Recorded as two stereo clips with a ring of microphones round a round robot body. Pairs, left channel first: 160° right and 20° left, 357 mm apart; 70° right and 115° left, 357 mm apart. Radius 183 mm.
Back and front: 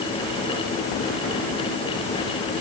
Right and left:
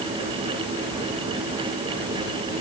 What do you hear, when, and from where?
Only background noise.